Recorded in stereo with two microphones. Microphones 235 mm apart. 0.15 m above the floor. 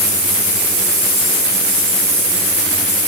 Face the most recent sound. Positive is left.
No sound to turn to.